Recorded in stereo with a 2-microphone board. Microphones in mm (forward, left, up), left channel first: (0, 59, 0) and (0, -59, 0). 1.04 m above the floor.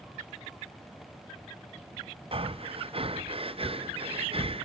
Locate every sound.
2.3 s breathing: 55° right (ahead or behind), 0.5 m